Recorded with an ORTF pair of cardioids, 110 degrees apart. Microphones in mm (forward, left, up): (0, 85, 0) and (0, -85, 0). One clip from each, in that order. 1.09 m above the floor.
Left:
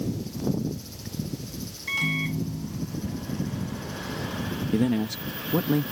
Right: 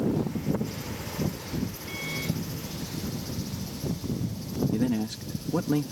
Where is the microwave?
60° left.